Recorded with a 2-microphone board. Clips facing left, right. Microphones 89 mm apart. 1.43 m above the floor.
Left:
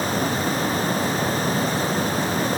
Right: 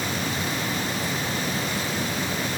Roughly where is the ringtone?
I don't hear a ringtone.